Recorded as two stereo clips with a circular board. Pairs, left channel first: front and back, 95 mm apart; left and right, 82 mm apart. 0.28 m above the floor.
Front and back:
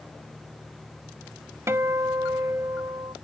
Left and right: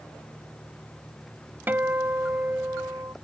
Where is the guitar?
140° right.